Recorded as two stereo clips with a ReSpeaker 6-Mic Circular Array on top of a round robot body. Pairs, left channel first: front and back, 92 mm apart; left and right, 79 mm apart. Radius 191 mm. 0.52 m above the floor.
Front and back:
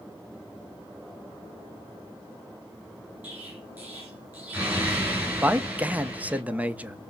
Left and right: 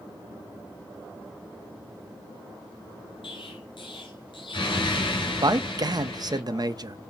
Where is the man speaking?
110° right, 0.9 m.